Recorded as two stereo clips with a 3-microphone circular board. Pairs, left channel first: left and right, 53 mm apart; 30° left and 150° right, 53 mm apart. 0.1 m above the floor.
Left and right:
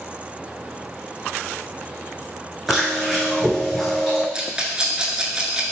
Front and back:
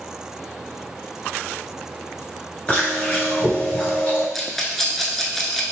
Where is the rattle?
50° right, 0.5 m.